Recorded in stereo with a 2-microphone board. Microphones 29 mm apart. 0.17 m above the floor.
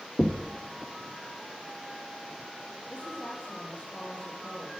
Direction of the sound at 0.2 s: 35° left (ahead or behind).